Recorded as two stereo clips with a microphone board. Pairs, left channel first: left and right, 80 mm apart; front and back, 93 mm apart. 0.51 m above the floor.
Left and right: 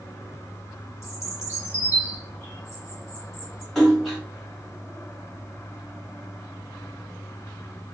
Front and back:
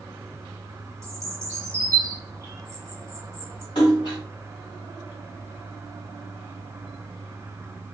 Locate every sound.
1.0 s a bird: 130° left, 0.9 m
3.8 s a splash: 5° right, 1.8 m